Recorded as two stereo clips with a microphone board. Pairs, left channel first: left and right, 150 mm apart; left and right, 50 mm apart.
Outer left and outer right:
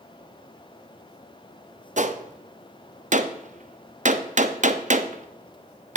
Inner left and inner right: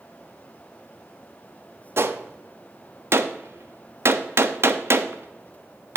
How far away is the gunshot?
About 0.6 m.